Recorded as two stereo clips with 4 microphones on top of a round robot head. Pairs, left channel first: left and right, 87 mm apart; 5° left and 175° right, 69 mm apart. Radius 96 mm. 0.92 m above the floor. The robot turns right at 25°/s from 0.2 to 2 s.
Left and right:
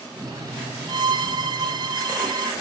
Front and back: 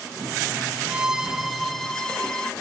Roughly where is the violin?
Right.